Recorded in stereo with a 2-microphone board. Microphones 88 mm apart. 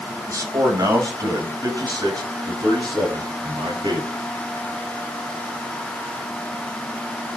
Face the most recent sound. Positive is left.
turn(degrees=-60)  # may be behind; listen again after turning